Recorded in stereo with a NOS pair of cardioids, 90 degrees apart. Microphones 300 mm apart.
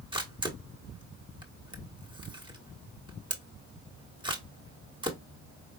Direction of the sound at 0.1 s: 15° right.